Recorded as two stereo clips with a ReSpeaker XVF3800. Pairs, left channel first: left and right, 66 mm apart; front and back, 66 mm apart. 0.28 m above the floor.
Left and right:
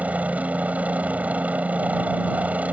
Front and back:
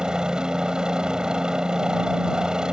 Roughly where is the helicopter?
Behind right.